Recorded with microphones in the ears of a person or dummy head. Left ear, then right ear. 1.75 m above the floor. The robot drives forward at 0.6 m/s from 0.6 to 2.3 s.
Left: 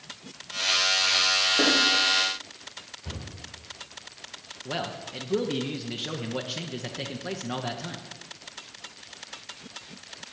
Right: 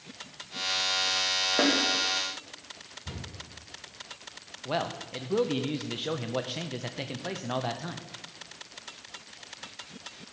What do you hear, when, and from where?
1.6 s a snare drum: 65° right (ahead or behind), 2.5 m
3.0 s a cupboard door: 40° left (ahead or behind), 4.5 m
4.7 s a man speaking: 10° right (ahead or behind), 0.5 m